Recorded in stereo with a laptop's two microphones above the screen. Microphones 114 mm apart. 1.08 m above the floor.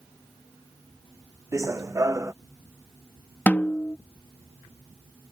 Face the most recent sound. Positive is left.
turn(degrees=15)  # may be behind; listen again after turning